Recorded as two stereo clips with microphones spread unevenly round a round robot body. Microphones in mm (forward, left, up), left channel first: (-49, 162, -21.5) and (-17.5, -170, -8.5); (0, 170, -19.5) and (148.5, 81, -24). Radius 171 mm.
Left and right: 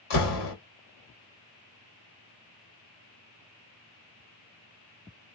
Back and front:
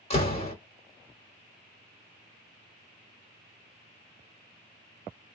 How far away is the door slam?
About 1.7 m.